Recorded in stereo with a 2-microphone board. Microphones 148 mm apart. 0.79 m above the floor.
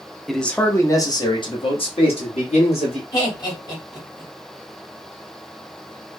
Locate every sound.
0.3 s a man speaking: centre (ahead or behind), 0.7 m; by 3.0 s 50° left (ahead or behind), 1.8 m
3.1 s laughter: 25° left (ahead or behind), 1.9 m